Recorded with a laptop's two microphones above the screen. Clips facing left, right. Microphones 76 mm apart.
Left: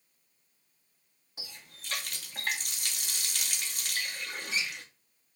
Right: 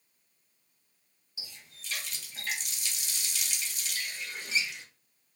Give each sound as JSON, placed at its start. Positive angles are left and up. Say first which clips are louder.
{"t": 1.4, "sound": "a running tap", "louder": "left 2 dB", "side_deg": 55, "distance_m": 0.5}